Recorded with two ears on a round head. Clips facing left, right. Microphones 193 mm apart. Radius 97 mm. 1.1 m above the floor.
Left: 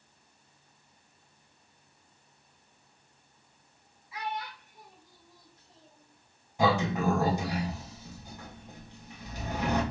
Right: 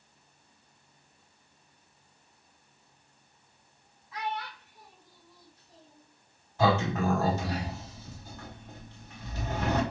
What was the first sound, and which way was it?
A child speaking, 5° left (ahead or behind).